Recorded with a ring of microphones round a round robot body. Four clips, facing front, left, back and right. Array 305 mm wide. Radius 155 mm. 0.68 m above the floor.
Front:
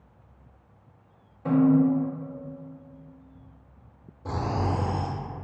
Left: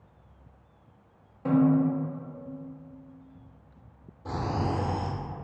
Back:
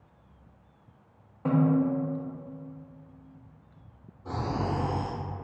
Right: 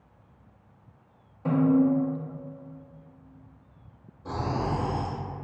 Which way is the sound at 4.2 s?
15° left.